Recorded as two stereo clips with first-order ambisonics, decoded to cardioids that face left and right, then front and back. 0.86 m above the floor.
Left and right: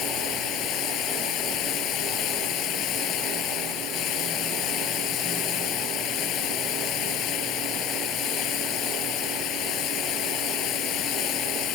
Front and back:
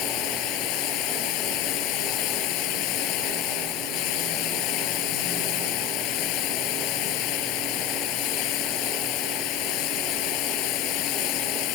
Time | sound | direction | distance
0.0 | running water | 40° left | ?